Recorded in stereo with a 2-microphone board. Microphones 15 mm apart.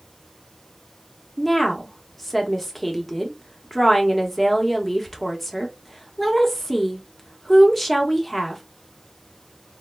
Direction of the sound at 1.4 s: 5° left (ahead or behind).